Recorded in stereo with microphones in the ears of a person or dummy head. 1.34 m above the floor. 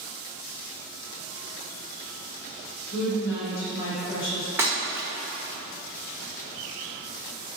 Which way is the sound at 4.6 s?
10° right (ahead or behind).